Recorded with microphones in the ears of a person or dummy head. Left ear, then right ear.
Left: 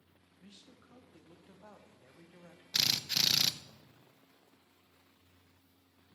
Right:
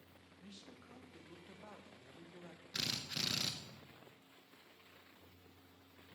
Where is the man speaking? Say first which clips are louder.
Right 1 dB; centre (ahead or behind), 1.2 m.